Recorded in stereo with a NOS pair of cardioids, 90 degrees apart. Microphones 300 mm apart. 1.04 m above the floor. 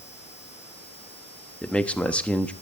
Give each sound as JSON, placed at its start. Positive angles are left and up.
{"t": 1.6, "sound": "a man speaking", "azimuth_deg": 5, "distance_m": 1.2}